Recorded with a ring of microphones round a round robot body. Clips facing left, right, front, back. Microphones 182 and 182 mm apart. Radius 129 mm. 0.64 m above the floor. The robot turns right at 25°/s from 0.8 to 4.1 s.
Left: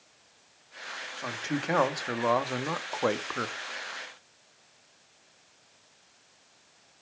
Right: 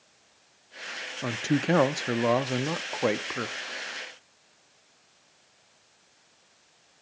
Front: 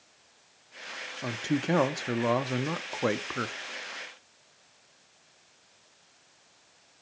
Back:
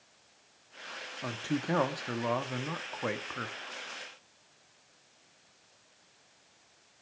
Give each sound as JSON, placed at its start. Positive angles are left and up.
{"t": 1.2, "sound": "a man speaking", "azimuth_deg": -65, "distance_m": 0.7}